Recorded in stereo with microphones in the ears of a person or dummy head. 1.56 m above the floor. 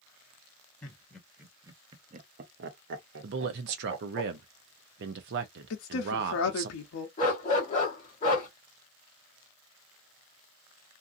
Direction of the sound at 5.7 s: 70° left (ahead or behind).